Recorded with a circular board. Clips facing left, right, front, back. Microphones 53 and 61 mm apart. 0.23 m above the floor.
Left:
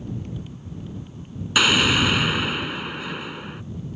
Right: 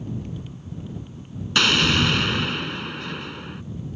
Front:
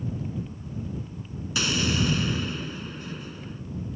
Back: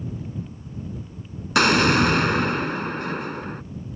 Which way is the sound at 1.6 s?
170° left.